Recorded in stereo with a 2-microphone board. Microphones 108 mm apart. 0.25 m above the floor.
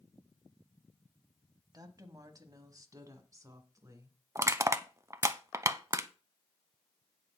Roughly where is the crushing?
Right.